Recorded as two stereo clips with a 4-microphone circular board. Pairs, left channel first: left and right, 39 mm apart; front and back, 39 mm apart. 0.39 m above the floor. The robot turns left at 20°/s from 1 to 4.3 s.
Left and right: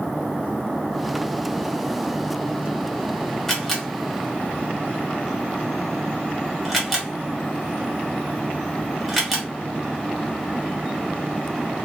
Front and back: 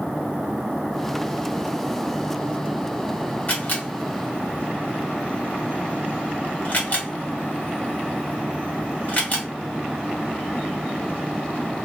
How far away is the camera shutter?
About 1.0 m.